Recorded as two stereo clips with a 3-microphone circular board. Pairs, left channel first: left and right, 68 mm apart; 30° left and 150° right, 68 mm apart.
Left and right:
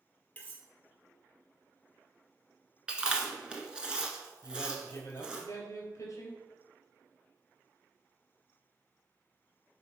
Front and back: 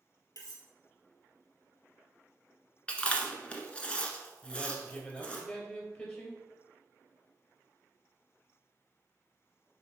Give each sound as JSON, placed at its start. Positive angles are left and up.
{"t": 0.4, "sound": "cutlery clinking", "azimuth_deg": 25, "distance_m": 1.6}
{"t": 2.9, "sound": "chewing", "azimuth_deg": -30, "distance_m": 1.2}
{"t": 4.4, "sound": "a man speaking", "azimuth_deg": 90, "distance_m": 2.5}